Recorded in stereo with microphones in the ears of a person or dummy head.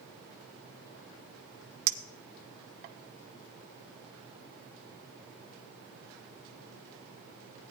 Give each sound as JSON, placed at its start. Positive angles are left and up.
{"t": 1.9, "sound": "a clink", "side_deg": -45, "distance_m": 0.9}